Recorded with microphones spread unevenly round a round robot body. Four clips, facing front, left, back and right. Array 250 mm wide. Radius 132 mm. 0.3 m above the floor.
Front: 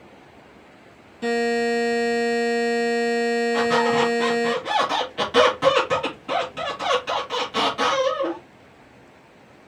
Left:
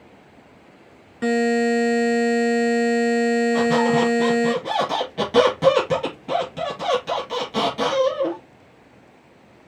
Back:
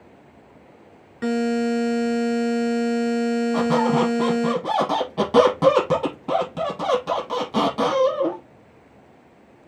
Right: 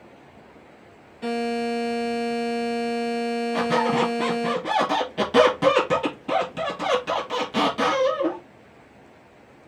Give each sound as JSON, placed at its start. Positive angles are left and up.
{"t": 1.2, "sound": "a buzzer", "azimuth_deg": 115, "distance_m": 1.2}
{"t": 3.5, "sound": "a squeak", "azimuth_deg": 175, "distance_m": 1.7}